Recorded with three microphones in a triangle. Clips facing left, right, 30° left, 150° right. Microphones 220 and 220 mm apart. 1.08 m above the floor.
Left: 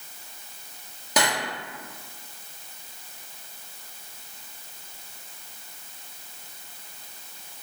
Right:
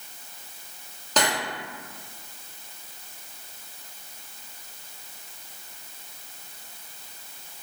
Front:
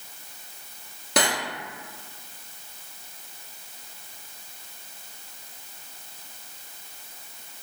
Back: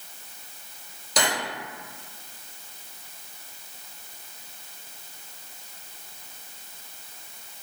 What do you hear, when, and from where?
1.2 s cutlery clinking: 15° left, 1.0 m